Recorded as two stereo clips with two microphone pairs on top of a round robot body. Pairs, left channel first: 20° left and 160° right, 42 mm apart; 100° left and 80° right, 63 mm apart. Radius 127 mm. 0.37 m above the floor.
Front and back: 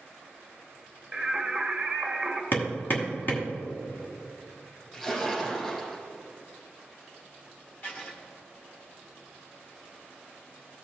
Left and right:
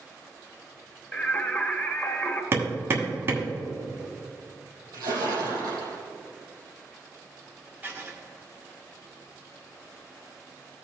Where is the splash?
60° right, 2.5 m.